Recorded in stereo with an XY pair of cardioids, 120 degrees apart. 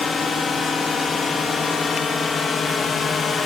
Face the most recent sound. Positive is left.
turn(degrees=40)